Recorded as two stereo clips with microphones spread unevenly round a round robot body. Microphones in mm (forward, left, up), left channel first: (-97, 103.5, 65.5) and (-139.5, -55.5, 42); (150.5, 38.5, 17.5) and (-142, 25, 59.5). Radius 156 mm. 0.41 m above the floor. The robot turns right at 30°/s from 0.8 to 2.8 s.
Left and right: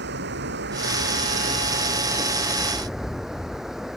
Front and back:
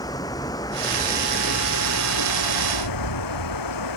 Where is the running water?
75° right; by 4.0 s 15° right.